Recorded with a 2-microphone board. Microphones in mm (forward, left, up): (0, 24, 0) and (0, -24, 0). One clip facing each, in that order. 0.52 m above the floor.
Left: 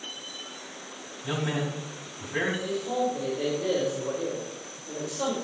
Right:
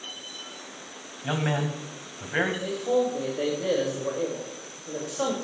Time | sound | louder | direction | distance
1.2 | a man speaking | right 2 dB | 50° right (ahead or behind) | 2.5 m
2.6 | a man speaking | right 3 dB | 35° right (ahead or behind) | 3 m